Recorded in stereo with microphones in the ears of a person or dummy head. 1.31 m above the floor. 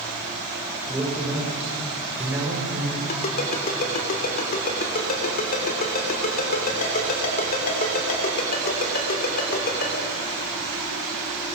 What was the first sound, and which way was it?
A man speaking, 10° right (ahead or behind).